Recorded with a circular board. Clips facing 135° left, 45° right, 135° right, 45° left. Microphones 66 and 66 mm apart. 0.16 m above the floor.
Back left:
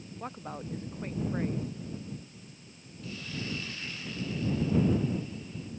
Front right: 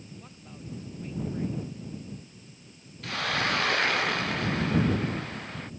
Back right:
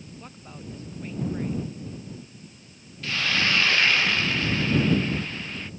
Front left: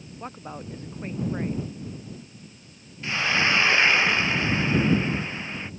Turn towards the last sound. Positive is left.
turn(degrees=-25)